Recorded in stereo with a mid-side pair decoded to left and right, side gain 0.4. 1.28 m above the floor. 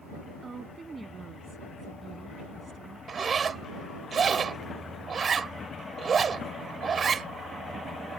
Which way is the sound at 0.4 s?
35° right.